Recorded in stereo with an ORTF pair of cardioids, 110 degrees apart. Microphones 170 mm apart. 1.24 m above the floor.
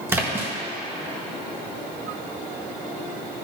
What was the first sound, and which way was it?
A splash, 15° right.